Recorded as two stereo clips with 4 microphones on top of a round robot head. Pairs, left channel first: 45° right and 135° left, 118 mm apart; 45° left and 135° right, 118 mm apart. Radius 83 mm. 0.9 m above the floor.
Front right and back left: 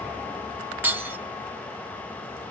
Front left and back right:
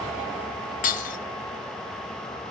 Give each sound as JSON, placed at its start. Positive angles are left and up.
{"t": 0.8, "sound": "breaking glass", "azimuth_deg": 60, "distance_m": 1.4}